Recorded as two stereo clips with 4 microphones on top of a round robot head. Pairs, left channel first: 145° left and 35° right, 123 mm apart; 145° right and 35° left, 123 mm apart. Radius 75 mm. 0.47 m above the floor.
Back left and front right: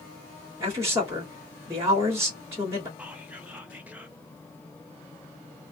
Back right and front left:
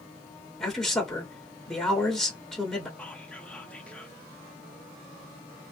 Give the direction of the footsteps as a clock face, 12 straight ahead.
I don't hear footsteps.